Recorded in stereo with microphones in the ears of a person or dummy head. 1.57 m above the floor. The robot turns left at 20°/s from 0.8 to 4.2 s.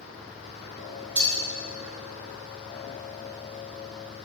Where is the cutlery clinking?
20° right (ahead or behind), 0.9 m.